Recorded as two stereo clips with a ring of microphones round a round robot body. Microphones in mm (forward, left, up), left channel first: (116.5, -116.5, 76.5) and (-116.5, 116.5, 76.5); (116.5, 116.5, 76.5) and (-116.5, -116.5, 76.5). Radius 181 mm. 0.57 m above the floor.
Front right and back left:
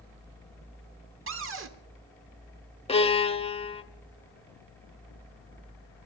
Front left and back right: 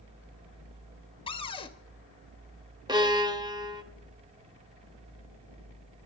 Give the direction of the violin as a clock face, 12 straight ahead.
3 o'clock.